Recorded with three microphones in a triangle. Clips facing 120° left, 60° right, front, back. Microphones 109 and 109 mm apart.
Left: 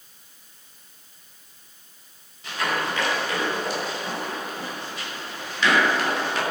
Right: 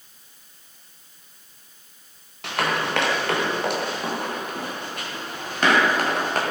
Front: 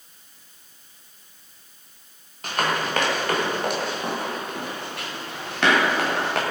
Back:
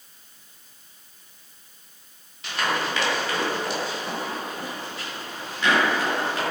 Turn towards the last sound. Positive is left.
turn(degrees=-15)